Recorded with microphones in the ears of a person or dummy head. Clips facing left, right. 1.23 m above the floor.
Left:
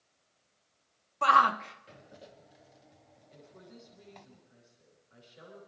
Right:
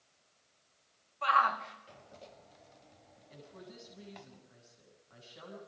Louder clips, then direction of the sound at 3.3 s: Right 2 dB; 75° right (ahead or behind).